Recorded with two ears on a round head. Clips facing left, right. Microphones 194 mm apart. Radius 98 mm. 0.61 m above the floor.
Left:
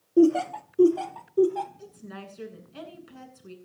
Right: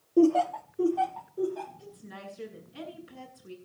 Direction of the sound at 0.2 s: 5° left (ahead or behind).